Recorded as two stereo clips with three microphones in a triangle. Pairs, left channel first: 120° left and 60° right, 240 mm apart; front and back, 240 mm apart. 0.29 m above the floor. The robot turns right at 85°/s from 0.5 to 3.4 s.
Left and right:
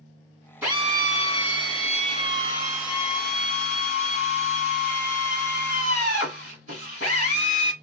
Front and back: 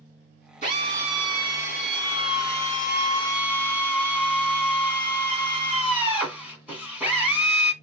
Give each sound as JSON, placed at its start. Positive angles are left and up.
{"t": 0.6, "sound": "a drill", "azimuth_deg": -140, "distance_m": 1.4}